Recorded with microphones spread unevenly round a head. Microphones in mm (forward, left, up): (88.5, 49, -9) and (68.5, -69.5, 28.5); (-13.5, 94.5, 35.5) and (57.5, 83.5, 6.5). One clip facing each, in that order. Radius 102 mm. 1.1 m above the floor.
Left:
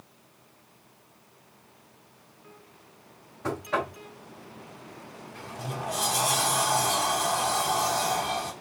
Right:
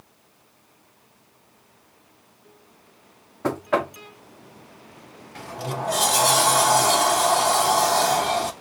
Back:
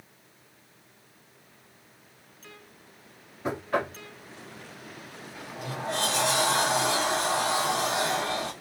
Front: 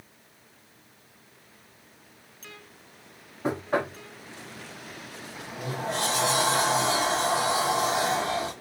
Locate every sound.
3.4 s knocking: 65° right, 0.7 m
5.3 s a sliding door: 95° right, 0.6 m